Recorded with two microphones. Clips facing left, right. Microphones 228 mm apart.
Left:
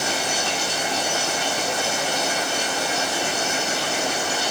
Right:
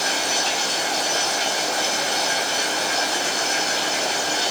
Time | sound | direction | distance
0.0 | running water | 55° left (ahead or behind) | 4 m